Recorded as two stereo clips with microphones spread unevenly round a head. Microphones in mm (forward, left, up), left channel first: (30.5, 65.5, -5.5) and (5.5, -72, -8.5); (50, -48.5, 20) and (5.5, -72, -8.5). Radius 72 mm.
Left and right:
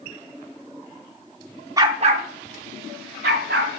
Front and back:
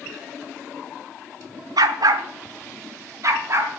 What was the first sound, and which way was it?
A dog barking, 165° right.